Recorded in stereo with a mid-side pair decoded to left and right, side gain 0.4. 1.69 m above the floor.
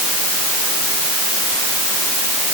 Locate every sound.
Only background noise.